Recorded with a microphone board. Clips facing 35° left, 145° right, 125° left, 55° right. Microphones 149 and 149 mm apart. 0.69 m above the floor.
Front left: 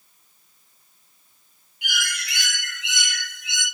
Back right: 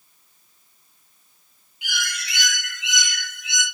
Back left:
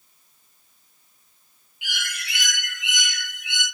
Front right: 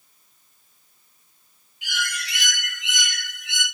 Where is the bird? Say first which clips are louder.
Even, front right 5 dB; 5° right, 6 m.